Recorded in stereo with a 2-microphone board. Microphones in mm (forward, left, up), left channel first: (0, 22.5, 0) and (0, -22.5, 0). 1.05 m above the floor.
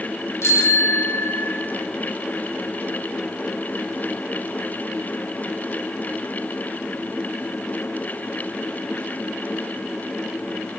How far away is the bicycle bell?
About 2.5 m.